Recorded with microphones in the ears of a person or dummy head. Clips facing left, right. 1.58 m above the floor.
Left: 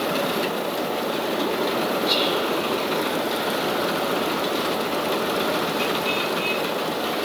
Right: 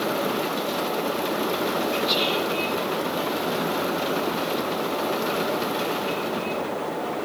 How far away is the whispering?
About 0.6 m.